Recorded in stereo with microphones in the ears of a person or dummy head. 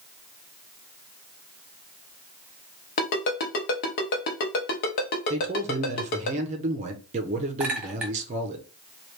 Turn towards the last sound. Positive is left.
turn(degrees=-10)  # may be behind; listen again after turning